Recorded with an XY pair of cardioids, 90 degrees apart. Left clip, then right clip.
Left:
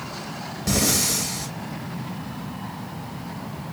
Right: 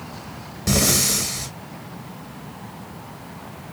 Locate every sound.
0.7 s breathing: 30° right, 0.5 m